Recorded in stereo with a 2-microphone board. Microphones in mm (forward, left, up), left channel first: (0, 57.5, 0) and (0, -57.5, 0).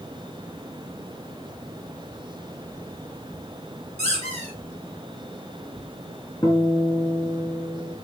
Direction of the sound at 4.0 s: 85° left.